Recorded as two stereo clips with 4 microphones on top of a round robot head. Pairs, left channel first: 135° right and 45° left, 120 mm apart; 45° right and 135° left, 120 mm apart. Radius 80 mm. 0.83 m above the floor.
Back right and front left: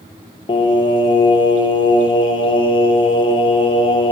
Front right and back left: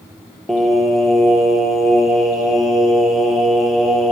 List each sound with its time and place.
0.5 s singing: 135° right, 1.0 m